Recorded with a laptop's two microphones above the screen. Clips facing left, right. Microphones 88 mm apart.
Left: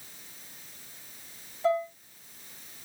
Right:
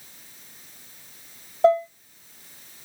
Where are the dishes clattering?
70° right (ahead or behind), 1.2 m.